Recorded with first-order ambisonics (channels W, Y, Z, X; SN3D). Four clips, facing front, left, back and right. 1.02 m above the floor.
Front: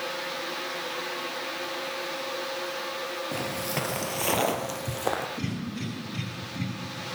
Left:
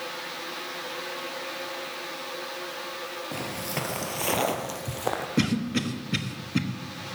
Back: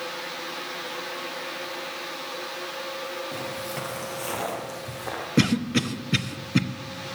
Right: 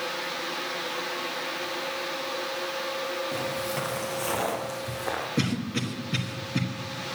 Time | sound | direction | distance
3.3 | footsteps | 30° left | 1.0 m
5.4 | a cough | 170° left | 1.1 m